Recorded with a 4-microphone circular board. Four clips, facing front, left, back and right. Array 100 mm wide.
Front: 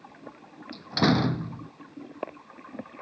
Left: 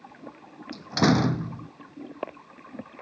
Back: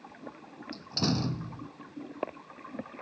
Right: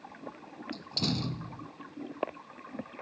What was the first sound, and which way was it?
A door slam, 60° left.